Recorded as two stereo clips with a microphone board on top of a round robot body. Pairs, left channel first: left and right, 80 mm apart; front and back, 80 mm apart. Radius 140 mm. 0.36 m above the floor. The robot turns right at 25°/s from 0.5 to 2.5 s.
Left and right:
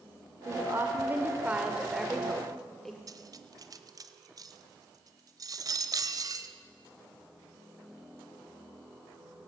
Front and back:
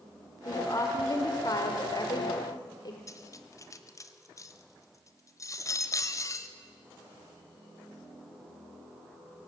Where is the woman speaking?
45° right, 1.8 m; by 3.0 s 5° left, 1.8 m.